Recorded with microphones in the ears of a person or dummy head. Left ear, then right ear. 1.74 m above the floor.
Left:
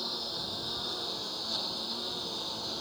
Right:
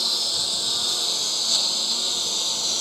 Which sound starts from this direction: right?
A lawn mower, at 0.0 s.